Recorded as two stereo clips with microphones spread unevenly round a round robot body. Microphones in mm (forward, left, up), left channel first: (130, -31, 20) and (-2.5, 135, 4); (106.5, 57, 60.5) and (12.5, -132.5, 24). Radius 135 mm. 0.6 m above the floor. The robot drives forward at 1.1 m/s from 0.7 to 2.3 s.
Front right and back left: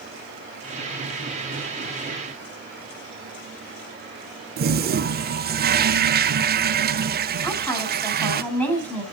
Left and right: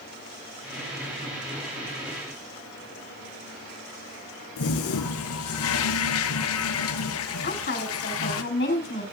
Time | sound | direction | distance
4.6 | a toilet flushing | 80° left | 0.5 m
7.4 | a woman speaking | 30° left | 6 m